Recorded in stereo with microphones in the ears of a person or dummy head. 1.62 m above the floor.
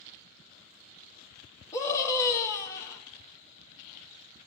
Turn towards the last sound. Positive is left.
turn(degrees=20)  # may be behind; listen again after turning